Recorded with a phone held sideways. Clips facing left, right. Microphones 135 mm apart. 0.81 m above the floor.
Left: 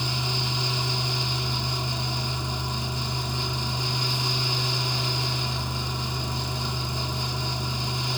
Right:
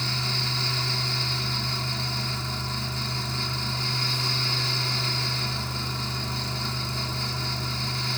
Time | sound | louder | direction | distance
0.0 | a fan | left 2 dB | 15° left (ahead or behind) | 1.7 m